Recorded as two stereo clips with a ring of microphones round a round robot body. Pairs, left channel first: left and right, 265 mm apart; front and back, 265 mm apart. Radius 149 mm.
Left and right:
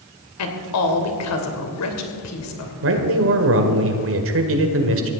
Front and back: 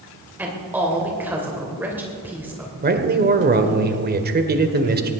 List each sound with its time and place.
0.4 s a woman speaking: 95° left, 2.5 m
2.8 s a man speaking: 130° right, 1.7 m